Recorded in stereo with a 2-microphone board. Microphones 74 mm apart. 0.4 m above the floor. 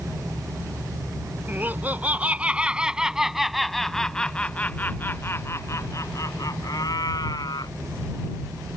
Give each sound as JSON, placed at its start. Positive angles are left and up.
{"t": 1.5, "sound": "laughter", "side_deg": -25}